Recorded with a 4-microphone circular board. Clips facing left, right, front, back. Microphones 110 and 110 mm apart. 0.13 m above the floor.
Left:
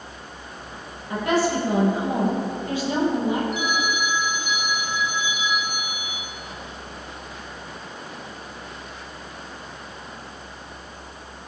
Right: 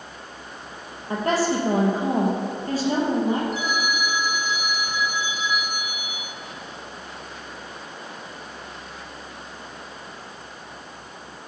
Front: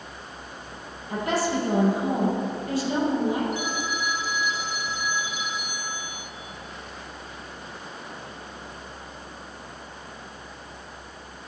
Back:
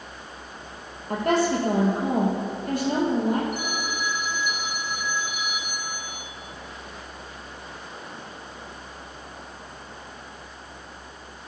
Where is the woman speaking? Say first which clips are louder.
Even, back 3 dB; 140° right, 4.5 m.